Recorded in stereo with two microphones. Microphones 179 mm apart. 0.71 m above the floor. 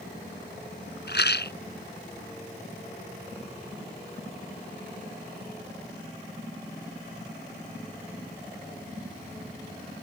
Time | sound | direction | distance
1.1 | a rattle | 70° left (ahead or behind) | ?